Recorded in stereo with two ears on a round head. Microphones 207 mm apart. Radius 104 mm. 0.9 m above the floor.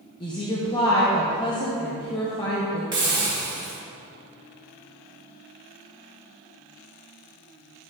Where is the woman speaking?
20° left (ahead or behind), 0.8 m.